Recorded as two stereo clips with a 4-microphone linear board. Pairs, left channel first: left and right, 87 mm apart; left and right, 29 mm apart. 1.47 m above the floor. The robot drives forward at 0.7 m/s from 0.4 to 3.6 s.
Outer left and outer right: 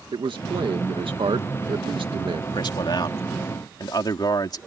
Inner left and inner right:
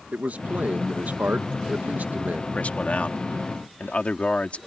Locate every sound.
0.1 s a man speaking: 70° right (ahead or behind)
2.5 s a man speaking: 60° left (ahead or behind); by 4.6 s 50° left (ahead or behind)